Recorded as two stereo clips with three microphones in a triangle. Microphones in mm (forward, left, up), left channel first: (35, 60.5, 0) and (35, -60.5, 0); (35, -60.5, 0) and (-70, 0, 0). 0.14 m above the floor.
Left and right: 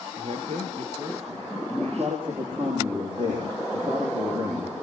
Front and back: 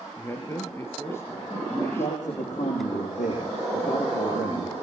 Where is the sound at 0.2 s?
100° right, 3.5 m.